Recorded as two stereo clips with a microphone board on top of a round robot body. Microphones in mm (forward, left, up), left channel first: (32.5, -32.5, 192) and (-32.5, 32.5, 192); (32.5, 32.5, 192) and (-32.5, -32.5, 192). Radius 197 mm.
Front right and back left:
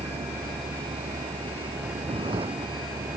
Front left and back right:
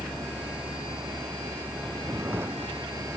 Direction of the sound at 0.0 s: 160° left.